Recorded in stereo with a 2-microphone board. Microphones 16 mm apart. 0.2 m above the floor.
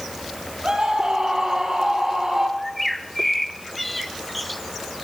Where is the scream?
55° right (ahead or behind), 6 m; by 2.5 s 35° right (ahead or behind), 7 m.